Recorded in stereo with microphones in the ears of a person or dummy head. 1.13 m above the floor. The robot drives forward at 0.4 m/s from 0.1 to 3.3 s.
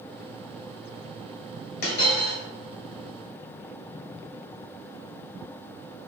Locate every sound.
1.8 s a dropped coin: 55° left (ahead or behind), 1.8 m; by 2.4 s 50° left (ahead or behind), 1.9 m